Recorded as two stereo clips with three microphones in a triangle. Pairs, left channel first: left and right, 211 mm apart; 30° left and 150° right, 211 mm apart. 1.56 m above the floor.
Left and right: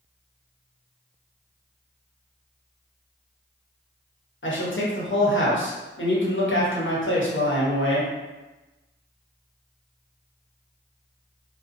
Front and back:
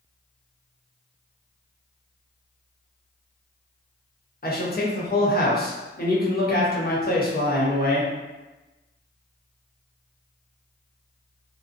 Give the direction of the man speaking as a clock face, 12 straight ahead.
10 o'clock.